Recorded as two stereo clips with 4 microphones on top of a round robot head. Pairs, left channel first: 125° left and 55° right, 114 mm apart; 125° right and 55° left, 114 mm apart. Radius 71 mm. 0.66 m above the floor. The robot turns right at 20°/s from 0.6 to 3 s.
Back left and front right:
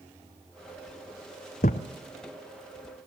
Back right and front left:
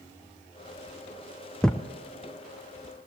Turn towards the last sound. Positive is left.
turn(degrees=175)